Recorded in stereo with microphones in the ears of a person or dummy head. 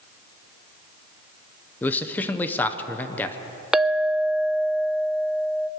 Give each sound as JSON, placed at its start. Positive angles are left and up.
{"t": 1.8, "sound": "a man speaking", "side_deg": 20, "distance_m": 0.9}
{"t": 3.7, "sound": "a clink", "side_deg": 0, "distance_m": 0.6}